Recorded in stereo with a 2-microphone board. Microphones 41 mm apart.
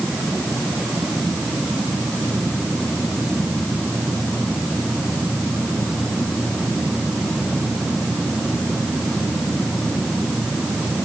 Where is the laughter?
I don't hear laughter.